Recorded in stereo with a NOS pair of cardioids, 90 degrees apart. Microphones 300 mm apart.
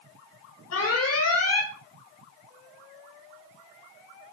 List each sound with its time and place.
0.7 s an alarm: 55° left, 6 m